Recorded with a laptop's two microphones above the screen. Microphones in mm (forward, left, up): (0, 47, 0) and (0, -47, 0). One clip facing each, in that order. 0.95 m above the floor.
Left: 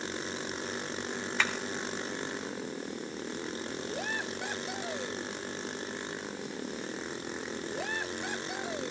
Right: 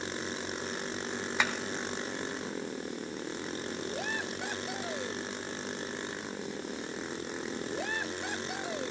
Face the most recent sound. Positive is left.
turn(degrees=-15)  # may be behind; listen again after turning